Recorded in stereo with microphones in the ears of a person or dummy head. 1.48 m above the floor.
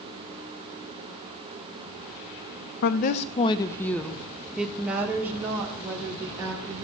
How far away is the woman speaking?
About 0.6 m.